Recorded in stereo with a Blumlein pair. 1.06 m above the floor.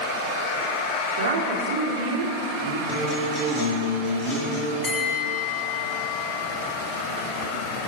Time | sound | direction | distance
1.2 | a woman speaking | 55° right | 2.5 m
2.9 | a guitar | 30° left | 4 m
4.8 | a bell | 15° left | 1.7 m